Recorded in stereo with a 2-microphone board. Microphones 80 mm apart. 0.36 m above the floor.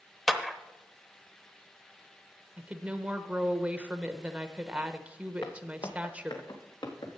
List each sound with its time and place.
0.3 s a clap: centre (ahead or behind), 0.8 m
2.6 s a woman speaking: 15° right (ahead or behind), 0.8 m
5.4 s footsteps: 75° left (ahead or behind), 1.6 m; by 7.2 s 85° left, 3.5 m